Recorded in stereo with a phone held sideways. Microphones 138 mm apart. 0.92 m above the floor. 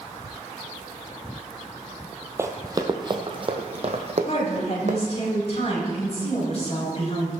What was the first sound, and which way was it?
Running footsteps, 20° right (ahead or behind).